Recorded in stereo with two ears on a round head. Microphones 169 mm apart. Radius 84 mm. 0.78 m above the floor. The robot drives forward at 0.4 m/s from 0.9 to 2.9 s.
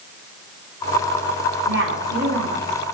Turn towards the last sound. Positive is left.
turn(degrees=-80)